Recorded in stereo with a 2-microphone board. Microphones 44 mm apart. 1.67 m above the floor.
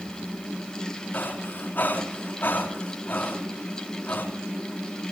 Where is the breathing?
50° left (ahead or behind), 3.5 m.